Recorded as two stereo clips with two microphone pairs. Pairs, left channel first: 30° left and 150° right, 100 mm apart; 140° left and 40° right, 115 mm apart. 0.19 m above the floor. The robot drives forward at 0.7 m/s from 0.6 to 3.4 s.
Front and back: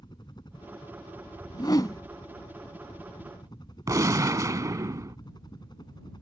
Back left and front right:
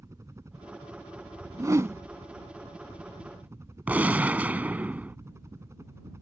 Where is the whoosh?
10° left; by 2.0 s 15° left.